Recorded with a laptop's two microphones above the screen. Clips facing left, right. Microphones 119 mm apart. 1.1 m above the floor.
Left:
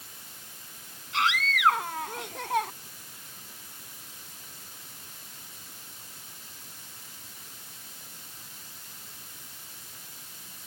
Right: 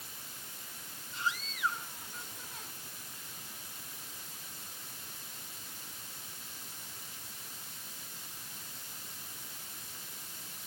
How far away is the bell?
No bell in this recording.